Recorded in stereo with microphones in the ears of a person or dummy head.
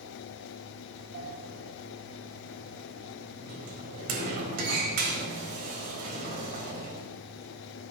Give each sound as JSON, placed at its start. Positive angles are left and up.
{"t": 1.1, "sound": "a sliding door", "side_deg": -50, "distance_m": 4.0}